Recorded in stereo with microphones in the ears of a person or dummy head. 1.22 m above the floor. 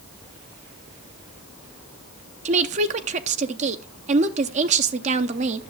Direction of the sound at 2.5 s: 40° right (ahead or behind).